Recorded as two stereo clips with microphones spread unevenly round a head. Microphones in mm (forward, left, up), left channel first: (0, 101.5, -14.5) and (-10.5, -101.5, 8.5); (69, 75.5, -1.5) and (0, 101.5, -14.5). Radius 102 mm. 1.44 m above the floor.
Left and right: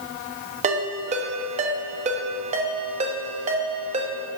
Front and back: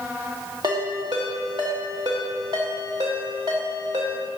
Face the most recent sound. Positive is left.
turn(degrees=-145)